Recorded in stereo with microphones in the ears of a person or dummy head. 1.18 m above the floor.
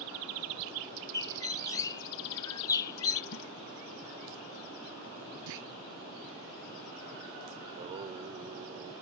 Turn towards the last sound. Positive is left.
turn(degrees=-30)  # may be behind; listen again after turning